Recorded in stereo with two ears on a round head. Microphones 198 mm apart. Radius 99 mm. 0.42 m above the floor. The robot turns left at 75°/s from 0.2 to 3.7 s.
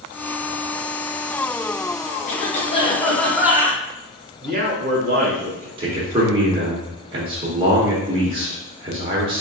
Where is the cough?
80° left, 1.1 m; by 3.8 s 25° right, 1.1 m.